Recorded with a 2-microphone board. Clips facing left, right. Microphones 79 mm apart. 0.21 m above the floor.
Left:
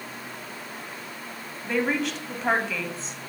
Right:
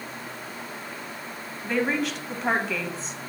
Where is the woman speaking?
Centre (ahead or behind), 1.0 m.